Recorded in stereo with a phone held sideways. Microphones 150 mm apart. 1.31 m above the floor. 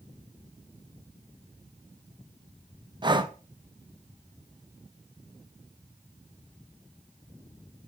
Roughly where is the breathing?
Right.